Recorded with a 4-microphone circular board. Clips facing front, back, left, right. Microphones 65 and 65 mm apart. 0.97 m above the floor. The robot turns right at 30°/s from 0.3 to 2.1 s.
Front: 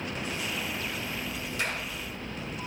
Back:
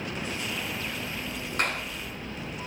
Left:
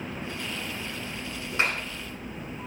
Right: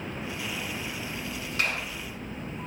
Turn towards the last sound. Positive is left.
turn(degrees=165)